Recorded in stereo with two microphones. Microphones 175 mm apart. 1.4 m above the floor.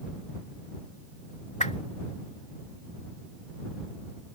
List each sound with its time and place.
1.6 s a whoosh: 40° left (ahead or behind)